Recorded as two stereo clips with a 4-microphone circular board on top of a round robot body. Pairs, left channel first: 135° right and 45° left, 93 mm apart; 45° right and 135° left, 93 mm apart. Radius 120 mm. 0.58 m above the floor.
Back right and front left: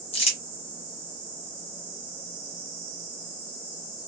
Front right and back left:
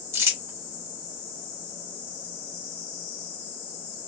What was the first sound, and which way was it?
Crumpling, 155° right.